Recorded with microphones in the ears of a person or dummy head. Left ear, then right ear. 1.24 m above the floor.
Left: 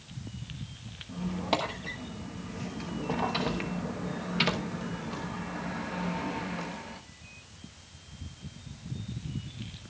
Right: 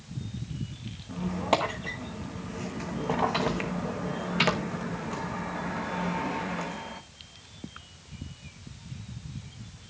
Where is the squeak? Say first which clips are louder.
Right 4 dB; 10° right (ahead or behind), 1.0 m.